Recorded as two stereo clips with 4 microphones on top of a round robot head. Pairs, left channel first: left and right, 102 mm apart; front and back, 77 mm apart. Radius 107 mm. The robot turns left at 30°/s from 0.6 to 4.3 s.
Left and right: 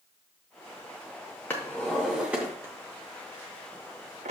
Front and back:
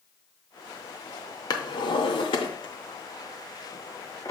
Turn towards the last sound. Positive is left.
turn(degrees=-70)